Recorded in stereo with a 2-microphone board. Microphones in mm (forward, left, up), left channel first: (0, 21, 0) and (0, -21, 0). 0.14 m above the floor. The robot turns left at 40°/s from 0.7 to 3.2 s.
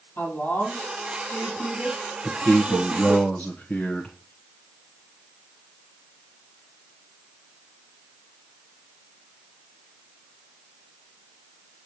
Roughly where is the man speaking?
Centre.